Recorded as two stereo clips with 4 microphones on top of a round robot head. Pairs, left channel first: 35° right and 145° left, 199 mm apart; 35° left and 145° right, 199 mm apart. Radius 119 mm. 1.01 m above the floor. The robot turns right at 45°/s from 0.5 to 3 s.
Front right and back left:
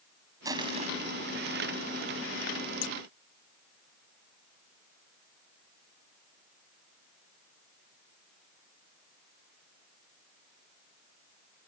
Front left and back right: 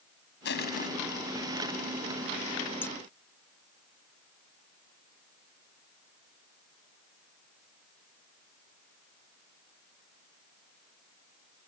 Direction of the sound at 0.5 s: 70° left.